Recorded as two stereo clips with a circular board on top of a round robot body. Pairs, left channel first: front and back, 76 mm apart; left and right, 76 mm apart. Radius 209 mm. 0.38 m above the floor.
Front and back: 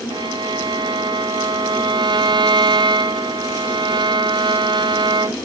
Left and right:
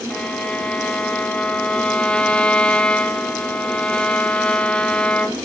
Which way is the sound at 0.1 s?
165° left.